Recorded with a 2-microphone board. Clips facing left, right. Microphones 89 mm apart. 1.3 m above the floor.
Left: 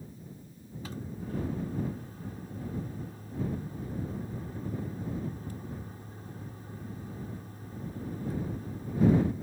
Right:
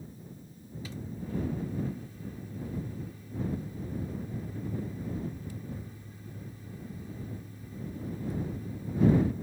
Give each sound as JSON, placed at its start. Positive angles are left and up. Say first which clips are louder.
{"t": 0.8, "sound": "a microwave", "louder": "left 1 dB", "side_deg": 45}